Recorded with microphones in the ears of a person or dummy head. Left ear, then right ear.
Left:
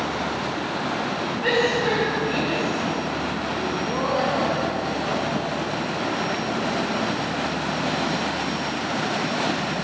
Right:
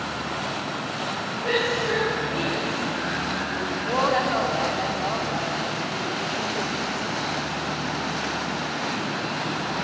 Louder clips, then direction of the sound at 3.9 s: Right 3 dB; 55° right (ahead or behind).